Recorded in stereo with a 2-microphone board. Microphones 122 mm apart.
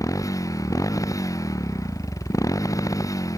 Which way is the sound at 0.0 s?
30° left (ahead or behind).